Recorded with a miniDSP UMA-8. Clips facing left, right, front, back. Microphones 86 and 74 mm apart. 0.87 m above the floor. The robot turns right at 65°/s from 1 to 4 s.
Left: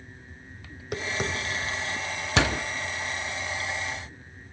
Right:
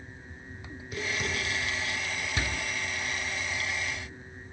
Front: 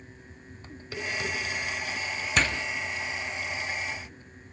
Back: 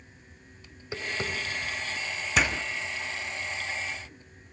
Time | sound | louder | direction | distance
0.7 | tapping | left 3 dB, even | 110° left | 4 m
2.4 | a door slam | left 11 dB, back 1 dB | 95° left | 0.7 m